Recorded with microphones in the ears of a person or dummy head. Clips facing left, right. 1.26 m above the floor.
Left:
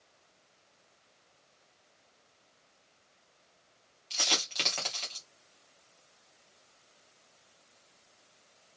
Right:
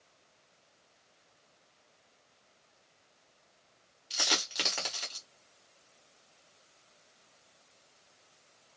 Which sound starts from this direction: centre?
A dropped coin, at 4.1 s.